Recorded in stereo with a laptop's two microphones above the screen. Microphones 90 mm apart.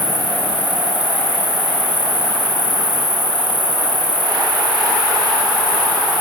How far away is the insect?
About 5.5 m.